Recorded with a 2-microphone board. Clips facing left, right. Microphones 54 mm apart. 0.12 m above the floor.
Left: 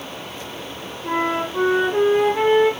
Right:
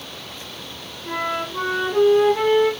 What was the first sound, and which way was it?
A flute, 20° left (ahead or behind).